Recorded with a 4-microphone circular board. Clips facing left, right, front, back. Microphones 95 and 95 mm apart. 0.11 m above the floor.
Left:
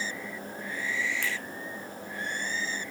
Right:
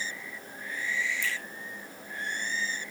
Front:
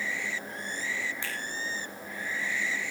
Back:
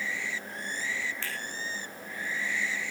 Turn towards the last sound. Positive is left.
turn(degrees=75)